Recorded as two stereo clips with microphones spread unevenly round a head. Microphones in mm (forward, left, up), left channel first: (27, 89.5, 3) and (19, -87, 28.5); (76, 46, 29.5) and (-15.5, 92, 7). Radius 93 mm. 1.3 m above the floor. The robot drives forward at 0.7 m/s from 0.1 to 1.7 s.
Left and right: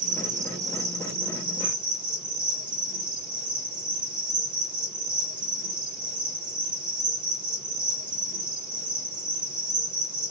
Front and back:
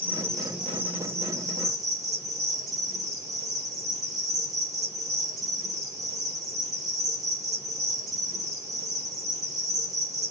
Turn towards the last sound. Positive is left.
turn(degrees=-160)